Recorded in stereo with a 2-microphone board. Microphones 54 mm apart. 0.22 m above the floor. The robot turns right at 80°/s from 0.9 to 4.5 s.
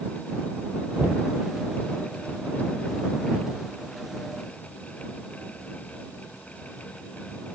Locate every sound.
1.0 s knocking: 25° right (ahead or behind); by 1.3 s 55° right (ahead or behind)